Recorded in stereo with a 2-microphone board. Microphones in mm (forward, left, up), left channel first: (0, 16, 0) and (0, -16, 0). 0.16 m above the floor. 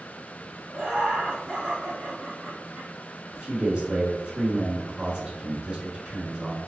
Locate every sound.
0.7 s laughter: 25° right (ahead or behind), 1.4 m
3.3 s a man speaking: 30° right (ahead or behind), 1.4 m